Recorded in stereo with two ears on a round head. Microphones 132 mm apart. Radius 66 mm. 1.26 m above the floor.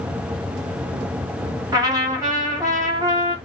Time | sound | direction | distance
1.7 | a trumpet | 25° right (ahead or behind) | 3.5 m